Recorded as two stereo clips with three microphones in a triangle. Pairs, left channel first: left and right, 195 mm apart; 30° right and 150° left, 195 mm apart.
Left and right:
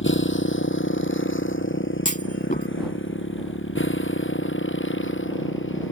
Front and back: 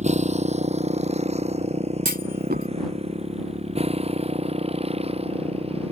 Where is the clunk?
125° left.